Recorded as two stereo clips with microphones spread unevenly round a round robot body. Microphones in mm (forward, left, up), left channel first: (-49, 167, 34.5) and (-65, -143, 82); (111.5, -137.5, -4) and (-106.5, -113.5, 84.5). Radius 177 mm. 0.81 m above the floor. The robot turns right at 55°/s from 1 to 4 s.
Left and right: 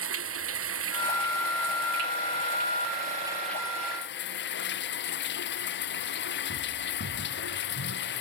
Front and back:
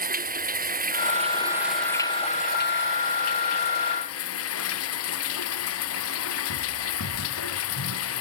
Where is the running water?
140° right; by 8.2 s 25° left.